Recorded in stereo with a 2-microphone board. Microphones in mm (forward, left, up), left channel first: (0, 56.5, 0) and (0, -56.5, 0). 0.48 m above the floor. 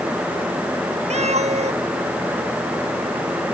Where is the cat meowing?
75° right (ahead or behind).